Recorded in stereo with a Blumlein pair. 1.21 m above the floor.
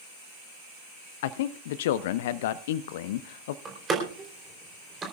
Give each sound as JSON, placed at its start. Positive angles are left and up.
{"t": 1.2, "sound": "a man speaking", "azimuth_deg": 55, "distance_m": 0.7}
{"t": 3.6, "sound": "a door slam", "azimuth_deg": -20, "distance_m": 3.5}